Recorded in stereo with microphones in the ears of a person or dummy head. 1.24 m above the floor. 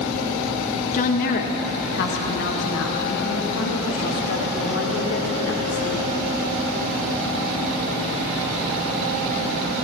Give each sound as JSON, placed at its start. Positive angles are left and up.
{"t": 0.9, "sound": "a woman speaking", "side_deg": 40, "distance_m": 1.6}